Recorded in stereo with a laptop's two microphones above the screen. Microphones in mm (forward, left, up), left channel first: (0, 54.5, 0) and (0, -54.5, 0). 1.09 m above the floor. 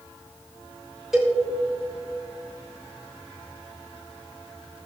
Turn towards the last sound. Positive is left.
turn(degrees=-5)  # may be behind; listen again after turning